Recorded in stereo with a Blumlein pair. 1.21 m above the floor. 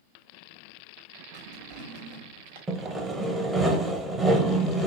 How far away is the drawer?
About 1.1 m.